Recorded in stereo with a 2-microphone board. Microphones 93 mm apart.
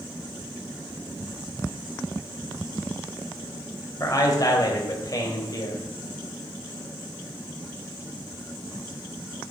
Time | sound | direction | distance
4.0 | a man speaking | 40° left (ahead or behind) | 2.5 m